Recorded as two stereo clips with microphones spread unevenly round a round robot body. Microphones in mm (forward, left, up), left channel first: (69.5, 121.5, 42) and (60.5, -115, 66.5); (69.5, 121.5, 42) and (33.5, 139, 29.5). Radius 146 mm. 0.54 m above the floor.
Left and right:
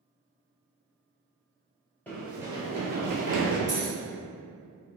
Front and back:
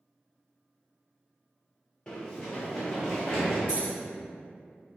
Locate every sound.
2.1 s running footsteps: straight ahead, 0.7 m; by 3.6 s 95° right, 0.9 m
3.7 s keys jangling: 145° right, 1.6 m